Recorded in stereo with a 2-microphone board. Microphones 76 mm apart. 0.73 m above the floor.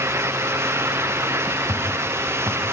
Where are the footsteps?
45° right (ahead or behind), 6.5 m.